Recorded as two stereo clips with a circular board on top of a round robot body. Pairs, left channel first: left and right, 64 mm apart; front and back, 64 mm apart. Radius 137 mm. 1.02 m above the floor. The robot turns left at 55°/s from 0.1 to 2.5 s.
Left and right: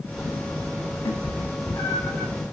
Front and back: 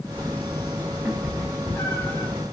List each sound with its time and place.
1.1 s a cat meowing: 95° left, 0.8 m; by 2.3 s 25° left, 0.8 m